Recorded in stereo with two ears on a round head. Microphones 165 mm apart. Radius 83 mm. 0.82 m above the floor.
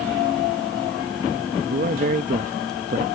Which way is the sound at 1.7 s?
45° right (ahead or behind).